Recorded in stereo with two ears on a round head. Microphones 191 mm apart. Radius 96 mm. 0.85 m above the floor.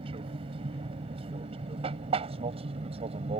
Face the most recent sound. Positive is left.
turn(degrees=-30)  # may be behind; listen again after turning